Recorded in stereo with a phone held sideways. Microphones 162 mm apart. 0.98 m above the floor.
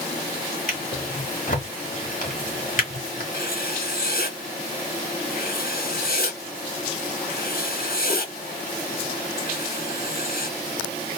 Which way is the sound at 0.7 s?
55° left (ahead or behind).